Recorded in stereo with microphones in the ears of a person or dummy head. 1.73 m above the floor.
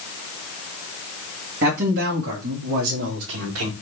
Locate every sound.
1.6 s a man speaking: 55° right (ahead or behind), 2 m; by 3.7 s 75° right (ahead or behind), 2.5 m